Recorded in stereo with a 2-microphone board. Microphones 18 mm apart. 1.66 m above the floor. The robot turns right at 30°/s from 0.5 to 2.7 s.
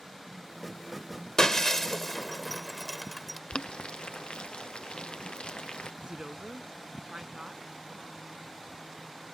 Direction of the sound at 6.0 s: 60° right (ahead or behind).